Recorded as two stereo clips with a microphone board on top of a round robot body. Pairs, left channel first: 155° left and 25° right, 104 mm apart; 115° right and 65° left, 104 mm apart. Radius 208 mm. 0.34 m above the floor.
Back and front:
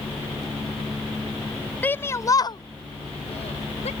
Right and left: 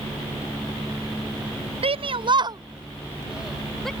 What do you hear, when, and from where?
1.8 s a shout: 85° left; by 3.9 s 160° left